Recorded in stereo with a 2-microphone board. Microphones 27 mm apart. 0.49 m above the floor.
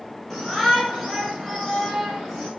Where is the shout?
10° left (ahead or behind), 4.5 m.